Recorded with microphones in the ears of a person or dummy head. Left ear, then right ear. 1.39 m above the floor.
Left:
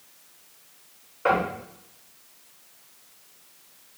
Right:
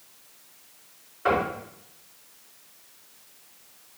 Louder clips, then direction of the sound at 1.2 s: Left 1 dB; 35° left (ahead or behind).